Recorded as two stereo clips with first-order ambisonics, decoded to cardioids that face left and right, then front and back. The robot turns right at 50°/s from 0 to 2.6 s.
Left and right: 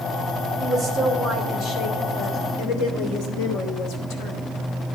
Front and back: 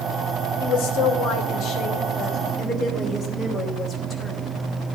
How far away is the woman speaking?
About 3 m.